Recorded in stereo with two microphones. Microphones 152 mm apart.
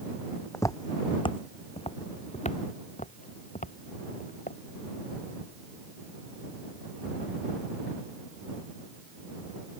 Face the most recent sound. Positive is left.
turn(degrees=60)  # may be behind; listen again after turning